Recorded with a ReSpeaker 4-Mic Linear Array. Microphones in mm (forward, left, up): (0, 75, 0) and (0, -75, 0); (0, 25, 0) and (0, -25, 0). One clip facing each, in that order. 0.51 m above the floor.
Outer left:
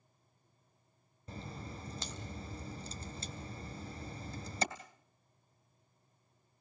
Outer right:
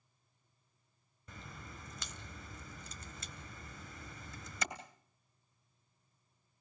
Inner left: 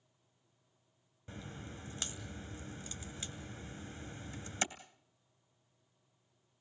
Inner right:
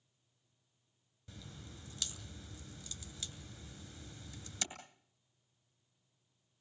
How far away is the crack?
About 2.5 m.